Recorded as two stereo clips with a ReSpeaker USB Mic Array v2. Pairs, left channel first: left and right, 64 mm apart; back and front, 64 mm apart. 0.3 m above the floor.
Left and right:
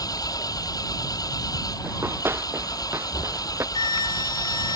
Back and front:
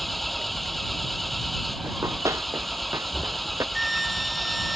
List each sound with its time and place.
0.0 s an engine running: 90° left
1.8 s running footsteps: 35° right; by 3.6 s 40° right
3.8 s a flute: 90° left